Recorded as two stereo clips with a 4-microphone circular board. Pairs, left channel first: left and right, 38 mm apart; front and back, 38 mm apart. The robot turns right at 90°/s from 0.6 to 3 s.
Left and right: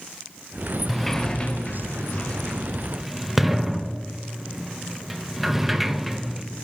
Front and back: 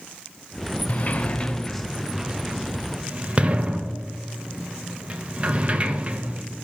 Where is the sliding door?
5° right, 0.6 m; by 6.4 s 175° right, 0.6 m.